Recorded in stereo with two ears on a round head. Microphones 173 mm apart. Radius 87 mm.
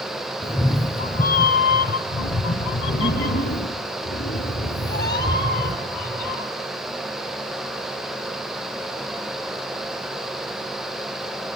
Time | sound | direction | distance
0.4 | a cat meowing | 15° left (ahead or behind) | 1.5 m